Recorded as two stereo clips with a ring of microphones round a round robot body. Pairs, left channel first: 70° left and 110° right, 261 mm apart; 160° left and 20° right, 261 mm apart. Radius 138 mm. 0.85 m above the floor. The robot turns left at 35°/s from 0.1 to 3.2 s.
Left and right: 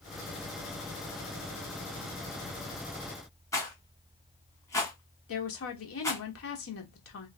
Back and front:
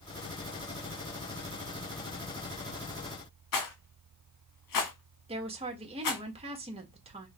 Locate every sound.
3.5 s a rattle: 145° left, 1.5 m
5.3 s a woman speaking: 45° left, 1.4 m